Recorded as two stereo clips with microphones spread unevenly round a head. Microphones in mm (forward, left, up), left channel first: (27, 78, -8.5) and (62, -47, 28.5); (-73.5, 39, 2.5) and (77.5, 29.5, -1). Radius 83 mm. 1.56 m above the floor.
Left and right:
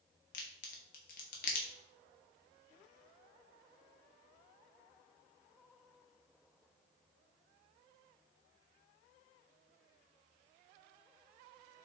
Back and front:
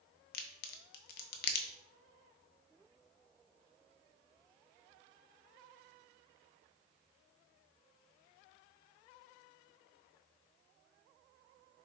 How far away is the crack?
About 0.6 m.